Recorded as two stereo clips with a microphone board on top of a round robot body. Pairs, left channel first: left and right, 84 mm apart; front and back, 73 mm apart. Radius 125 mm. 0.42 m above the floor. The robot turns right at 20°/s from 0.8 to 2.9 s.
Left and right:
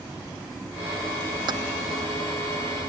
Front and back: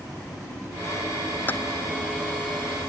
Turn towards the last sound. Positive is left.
turn(degrees=-35)